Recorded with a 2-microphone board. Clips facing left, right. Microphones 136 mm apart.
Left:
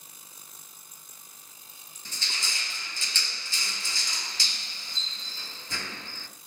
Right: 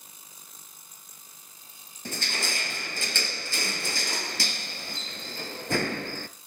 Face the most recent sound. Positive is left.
turn(degrees=-60)  # may be behind; listen again after turning